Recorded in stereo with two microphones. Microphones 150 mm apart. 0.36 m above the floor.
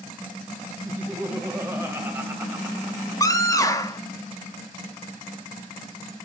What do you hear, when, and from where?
0.8 s laughter: 15° right (ahead or behind), 1.9 m
3.2 s a scream: 20° left (ahead or behind), 1.0 m